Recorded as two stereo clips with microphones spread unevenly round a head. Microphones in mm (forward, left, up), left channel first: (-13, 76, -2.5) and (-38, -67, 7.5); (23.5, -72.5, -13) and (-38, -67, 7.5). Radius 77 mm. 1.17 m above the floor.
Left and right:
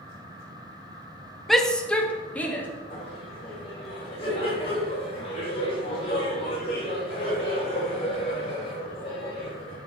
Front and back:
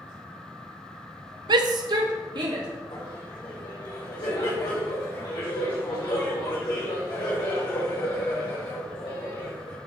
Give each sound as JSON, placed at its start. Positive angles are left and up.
{"t": 1.5, "sound": "a shout", "azimuth_deg": 170, "distance_m": 0.9}
{"t": 2.9, "sound": "laughter", "azimuth_deg": 25, "distance_m": 3.5}